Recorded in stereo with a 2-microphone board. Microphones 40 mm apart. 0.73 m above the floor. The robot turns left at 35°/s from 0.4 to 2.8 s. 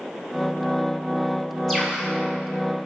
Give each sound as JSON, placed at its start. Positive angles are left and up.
{"t": 1.7, "sound": "a bird", "side_deg": 5, "distance_m": 3.0}